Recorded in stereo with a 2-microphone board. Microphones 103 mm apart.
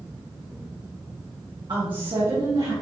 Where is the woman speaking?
50° right (ahead or behind), 1.6 m; by 2.7 s 65° right (ahead or behind), 3 m.